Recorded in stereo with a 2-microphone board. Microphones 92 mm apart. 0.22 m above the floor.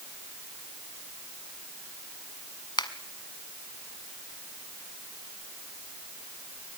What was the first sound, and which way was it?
A finger snap, 55° left (ahead or behind).